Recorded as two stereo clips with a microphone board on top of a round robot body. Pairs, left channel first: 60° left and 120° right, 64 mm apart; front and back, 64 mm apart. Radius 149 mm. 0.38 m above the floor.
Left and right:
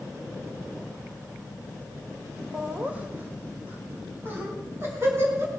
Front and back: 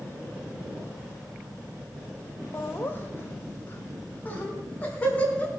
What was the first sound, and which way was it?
Laughter, 45° right.